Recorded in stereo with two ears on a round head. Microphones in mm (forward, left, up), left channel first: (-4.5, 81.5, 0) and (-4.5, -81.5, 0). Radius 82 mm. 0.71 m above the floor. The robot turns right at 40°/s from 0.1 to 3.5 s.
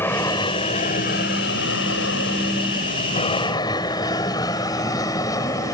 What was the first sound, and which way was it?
An aircraft, 10° left (ahead or behind).